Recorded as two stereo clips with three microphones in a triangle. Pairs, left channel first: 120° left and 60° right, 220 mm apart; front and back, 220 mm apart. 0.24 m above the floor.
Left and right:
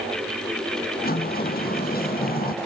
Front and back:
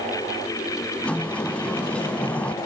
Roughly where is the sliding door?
Left.